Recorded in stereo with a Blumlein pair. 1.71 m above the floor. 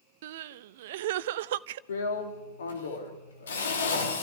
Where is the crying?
55° right, 0.5 m.